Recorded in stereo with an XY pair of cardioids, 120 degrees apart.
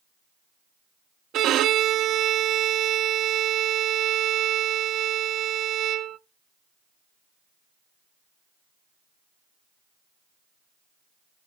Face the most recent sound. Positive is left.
turn(degrees=-70)